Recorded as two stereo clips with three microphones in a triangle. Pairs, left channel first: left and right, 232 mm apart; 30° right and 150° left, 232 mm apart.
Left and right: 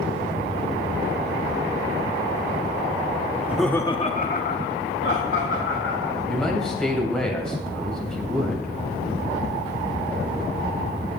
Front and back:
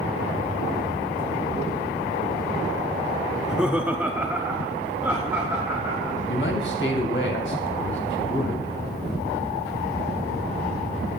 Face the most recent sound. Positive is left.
turn(degrees=5)